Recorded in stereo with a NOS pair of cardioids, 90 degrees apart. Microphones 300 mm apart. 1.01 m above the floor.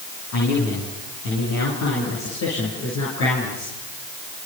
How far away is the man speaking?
About 8.5 m.